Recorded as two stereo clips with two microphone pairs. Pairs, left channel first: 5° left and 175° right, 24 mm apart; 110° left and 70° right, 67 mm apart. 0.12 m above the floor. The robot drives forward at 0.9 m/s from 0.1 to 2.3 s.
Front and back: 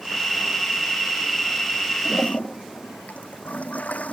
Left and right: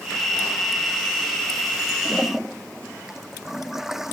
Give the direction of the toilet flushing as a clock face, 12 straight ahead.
12 o'clock.